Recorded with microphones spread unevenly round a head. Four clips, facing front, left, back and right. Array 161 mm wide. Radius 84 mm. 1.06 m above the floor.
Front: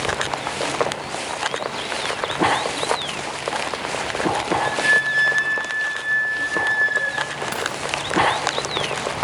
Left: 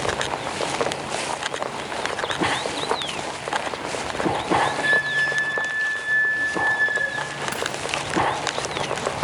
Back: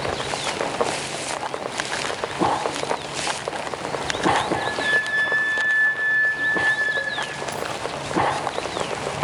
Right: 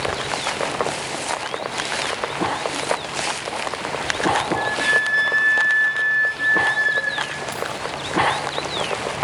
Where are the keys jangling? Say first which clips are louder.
Right 1 dB, front 1 dB; 5° left, 7 m.